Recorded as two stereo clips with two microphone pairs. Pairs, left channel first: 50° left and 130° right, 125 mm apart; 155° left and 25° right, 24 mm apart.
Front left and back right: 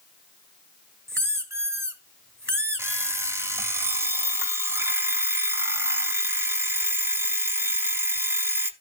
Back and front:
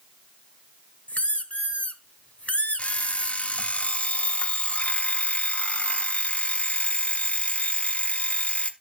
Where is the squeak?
170° left, 1.1 m.